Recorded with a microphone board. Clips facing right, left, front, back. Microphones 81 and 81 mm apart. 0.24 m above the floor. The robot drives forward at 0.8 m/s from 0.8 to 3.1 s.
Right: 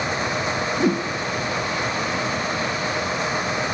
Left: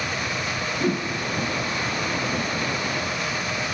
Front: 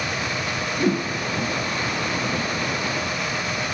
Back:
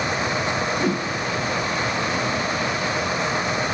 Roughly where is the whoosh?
Right.